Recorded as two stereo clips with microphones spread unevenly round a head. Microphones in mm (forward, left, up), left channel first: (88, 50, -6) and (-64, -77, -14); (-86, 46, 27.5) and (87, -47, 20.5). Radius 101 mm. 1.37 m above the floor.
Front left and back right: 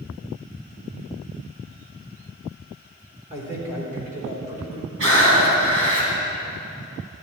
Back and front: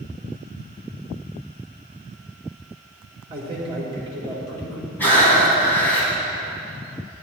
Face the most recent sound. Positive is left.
turn(degrees=-130)